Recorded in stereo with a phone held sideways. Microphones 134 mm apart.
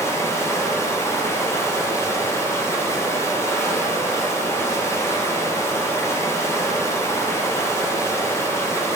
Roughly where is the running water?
Left.